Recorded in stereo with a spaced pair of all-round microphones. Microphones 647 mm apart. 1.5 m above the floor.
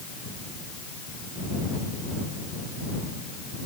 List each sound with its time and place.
Only background noise.